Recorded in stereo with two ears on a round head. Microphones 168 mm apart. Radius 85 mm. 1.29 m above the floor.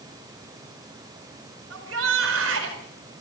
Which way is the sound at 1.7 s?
75° right (ahead or behind).